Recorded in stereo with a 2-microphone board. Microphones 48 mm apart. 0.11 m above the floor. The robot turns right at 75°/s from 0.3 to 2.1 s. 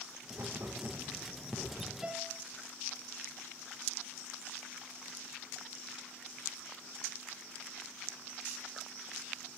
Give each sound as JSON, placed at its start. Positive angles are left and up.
{"t": 0.3, "sound": "writing", "side_deg": -85, "distance_m": 4.0}
{"t": 2.0, "sound": "a piano", "side_deg": -15, "distance_m": 1.4}